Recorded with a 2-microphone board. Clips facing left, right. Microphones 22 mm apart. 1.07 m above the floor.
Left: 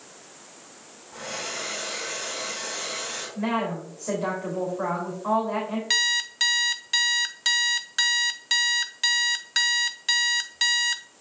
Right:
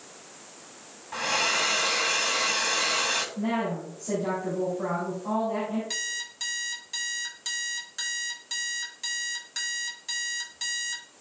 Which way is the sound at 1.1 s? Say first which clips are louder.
Right 8 dB; 75° right (ahead or behind).